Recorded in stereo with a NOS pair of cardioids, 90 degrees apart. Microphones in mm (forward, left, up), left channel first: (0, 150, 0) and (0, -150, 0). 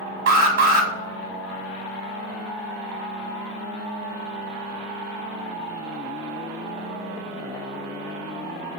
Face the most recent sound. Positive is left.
turn(degrees=-55)